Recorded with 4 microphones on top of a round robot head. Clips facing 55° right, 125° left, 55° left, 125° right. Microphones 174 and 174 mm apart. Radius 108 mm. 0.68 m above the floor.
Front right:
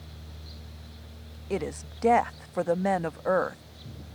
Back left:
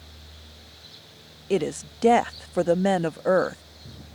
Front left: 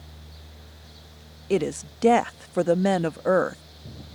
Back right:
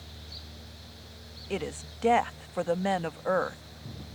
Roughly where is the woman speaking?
Left.